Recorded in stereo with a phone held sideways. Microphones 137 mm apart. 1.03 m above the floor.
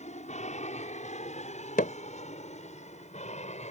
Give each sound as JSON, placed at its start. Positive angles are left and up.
{"t": 0.0, "sound": "an aircraft", "side_deg": 55}
{"t": 1.8, "sound": "hammering", "side_deg": 80}